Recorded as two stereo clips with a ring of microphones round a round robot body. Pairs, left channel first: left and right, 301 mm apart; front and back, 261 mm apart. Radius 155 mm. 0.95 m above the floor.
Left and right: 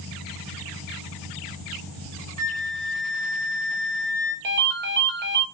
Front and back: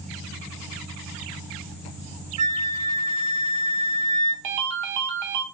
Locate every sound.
2.4 s a flute: 155° right, 0.7 m
4.4 s a ringtone: 150° right, 0.6 m